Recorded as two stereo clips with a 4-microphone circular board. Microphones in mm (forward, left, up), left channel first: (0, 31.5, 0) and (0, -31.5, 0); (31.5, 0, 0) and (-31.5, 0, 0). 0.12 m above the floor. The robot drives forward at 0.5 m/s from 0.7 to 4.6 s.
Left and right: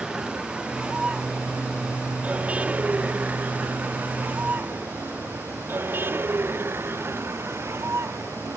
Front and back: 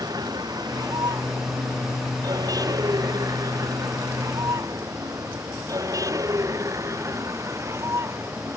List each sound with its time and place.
0.0 s a vehicle: 165° right; by 8.6 s 135° right